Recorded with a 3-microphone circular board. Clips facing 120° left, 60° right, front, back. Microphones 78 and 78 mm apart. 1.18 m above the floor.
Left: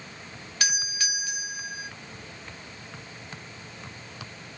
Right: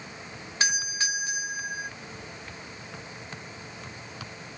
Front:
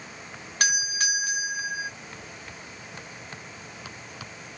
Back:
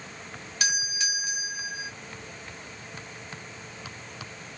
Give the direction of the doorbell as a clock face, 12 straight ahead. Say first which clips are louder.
Right 2 dB, front 4 dB; 12 o'clock.